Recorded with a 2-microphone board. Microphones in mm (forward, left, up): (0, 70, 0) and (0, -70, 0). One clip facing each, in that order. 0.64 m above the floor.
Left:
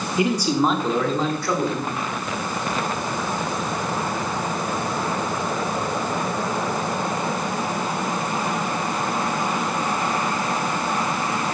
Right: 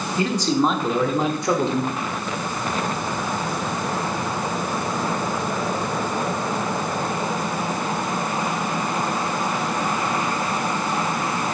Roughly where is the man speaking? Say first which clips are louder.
Even; centre.